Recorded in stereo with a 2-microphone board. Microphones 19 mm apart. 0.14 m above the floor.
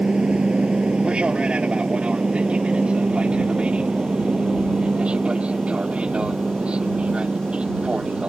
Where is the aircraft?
60° right (ahead or behind); by 8.3 s 65° right (ahead or behind).